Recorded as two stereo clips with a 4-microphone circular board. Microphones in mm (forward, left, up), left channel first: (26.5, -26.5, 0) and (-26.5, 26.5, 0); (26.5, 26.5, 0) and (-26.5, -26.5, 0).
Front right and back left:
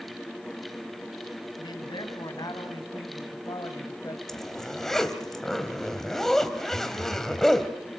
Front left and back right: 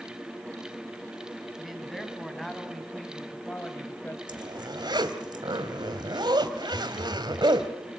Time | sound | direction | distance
1.6 | a man speaking | 45° right | 4.5 m
4.3 | a zipper | 130° right | 1.7 m
6.7 | a phone buzzing | 70° right | 3 m